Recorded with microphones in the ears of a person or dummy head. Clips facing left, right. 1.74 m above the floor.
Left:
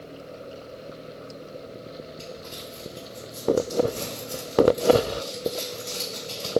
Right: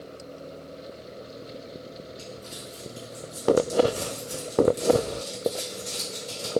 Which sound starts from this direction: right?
Crumpling, at 2.2 s.